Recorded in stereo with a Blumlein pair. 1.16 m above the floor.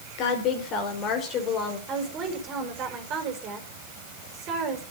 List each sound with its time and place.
0.2 s a woman speaking: 40° left, 4.5 m; by 1.8 s 30° left, 5 m
1.9 s a woman speaking: 30° right, 4.5 m